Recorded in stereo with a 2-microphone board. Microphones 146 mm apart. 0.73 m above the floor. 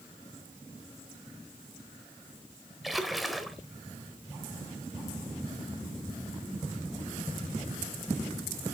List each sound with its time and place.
2.8 s a splash: centre (ahead or behind), 1.0 m